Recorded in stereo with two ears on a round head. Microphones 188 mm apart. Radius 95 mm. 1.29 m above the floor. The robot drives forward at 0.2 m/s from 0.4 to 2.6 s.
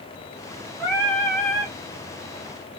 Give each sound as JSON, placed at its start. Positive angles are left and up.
{"t": 0.8, "sound": "singing", "side_deg": 10, "distance_m": 2.5}